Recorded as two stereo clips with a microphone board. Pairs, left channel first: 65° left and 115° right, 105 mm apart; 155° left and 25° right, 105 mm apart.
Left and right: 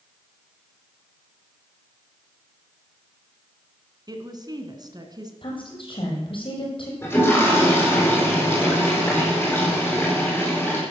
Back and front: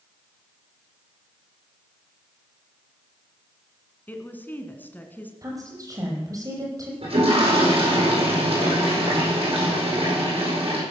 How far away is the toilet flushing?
About 8.5 m.